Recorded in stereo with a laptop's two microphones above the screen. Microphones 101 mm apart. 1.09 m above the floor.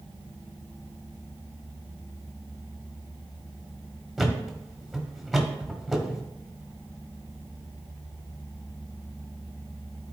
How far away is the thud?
About 1.0 m.